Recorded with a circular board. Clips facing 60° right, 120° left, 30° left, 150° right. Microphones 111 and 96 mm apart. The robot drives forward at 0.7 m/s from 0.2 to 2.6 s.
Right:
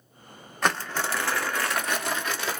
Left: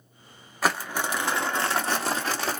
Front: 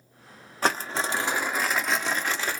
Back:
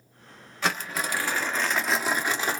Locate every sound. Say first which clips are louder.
0.6 s crumpling: even, front 3 dB; 40° left, 1.2 m; by 2.6 s 150° left, 1.3 m